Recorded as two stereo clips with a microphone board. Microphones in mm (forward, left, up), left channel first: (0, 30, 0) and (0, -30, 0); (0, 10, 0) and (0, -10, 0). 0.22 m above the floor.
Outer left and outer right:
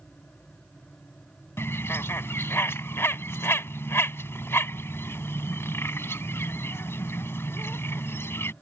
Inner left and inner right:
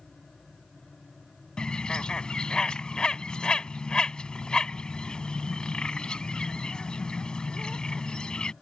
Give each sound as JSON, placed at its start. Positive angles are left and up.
{"t": 1.6, "sound": "a bird", "side_deg": 45}